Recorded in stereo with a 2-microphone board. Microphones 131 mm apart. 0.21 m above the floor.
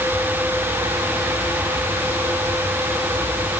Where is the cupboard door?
No cupboard door in this recording.